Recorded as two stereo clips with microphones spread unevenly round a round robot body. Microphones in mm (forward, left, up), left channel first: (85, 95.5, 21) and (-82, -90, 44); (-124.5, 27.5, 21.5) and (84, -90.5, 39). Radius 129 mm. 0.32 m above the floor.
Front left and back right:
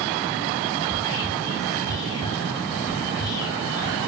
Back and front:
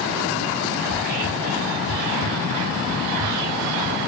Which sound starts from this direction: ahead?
Whispering, at 0.8 s.